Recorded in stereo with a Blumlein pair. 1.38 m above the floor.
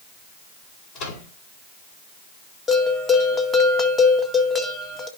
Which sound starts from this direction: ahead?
A bell, at 2.7 s.